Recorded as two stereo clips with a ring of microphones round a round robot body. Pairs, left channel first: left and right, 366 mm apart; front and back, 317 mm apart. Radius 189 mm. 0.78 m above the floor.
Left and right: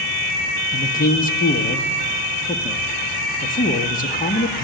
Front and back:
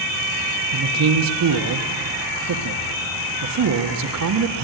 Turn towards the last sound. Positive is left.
turn(degrees=155)